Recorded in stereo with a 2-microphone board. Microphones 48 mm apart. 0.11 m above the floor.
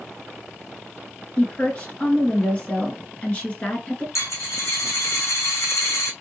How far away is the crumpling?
No crumpling in this recording.